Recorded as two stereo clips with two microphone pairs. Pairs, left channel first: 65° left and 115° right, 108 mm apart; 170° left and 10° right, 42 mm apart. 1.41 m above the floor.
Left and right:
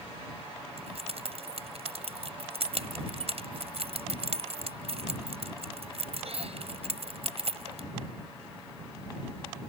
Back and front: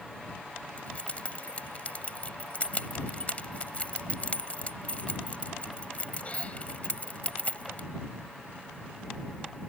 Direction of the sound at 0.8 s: 130° right.